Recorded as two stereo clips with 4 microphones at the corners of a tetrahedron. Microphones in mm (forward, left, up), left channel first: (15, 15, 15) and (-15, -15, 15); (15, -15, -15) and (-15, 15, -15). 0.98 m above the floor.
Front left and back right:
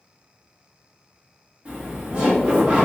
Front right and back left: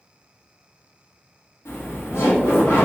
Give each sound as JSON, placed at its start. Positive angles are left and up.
{"t": 1.6, "sound": "laughter", "azimuth_deg": -70, "distance_m": 1.2}